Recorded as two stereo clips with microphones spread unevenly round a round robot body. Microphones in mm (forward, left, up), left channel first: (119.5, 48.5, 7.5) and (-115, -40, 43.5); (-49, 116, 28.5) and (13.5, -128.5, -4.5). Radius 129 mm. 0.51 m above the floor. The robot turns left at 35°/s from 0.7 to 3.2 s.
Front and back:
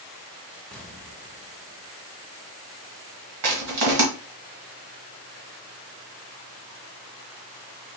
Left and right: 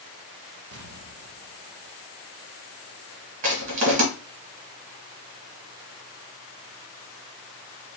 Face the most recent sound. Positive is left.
turn(degrees=-135)